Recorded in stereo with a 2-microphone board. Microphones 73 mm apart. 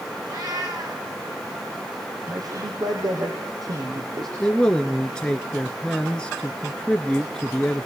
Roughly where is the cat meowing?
Right.